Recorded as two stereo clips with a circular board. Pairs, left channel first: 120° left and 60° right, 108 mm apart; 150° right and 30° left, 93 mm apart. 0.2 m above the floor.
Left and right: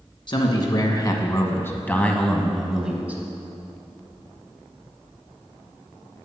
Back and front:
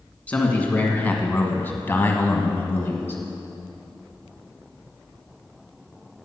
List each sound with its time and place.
0.3 s a man speaking: 140° left, 1.7 m; by 3.2 s 115° right, 1.3 m